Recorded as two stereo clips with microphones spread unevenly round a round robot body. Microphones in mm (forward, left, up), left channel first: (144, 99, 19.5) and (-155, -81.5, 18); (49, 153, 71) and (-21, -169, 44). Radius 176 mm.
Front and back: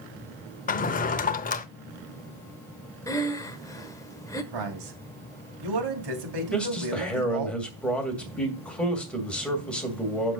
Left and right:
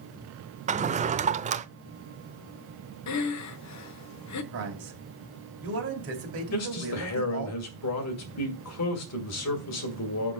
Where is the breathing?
110° left, 0.9 m.